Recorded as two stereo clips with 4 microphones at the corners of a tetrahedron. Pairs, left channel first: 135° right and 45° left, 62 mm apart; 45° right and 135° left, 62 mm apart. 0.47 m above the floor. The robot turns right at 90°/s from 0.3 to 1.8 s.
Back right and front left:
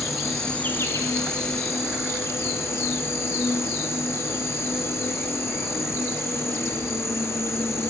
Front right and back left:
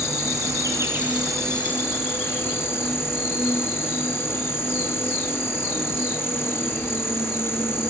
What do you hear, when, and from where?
0.0 s an insect: 130° left, 2 m; by 7.9 s 95° right, 2 m